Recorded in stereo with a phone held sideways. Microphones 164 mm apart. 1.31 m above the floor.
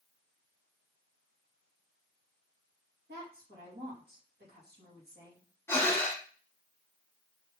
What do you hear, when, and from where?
3.1 s a woman speaking: 80° right, 2.5 m
5.7 s breathing: 15° left (ahead or behind), 1.0 m